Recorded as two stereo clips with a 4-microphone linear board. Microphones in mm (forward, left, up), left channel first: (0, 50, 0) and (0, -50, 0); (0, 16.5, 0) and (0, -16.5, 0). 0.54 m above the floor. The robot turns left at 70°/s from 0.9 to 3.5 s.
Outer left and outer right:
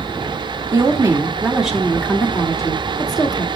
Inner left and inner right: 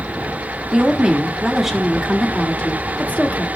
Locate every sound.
0.7 s a woman speaking: 120° right, 1.6 m; by 3.6 s 55° left, 1.6 m